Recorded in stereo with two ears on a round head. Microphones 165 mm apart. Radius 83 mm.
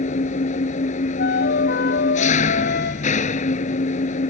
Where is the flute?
60° left (ahead or behind).